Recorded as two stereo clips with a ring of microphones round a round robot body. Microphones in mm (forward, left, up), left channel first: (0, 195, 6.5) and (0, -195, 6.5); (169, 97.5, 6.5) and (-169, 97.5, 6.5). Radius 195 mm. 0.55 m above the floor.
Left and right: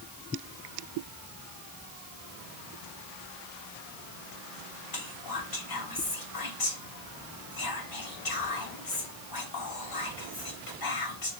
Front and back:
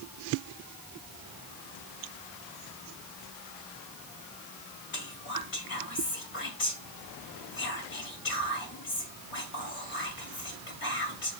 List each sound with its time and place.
4.9 s whispering: 55° left, 2.5 m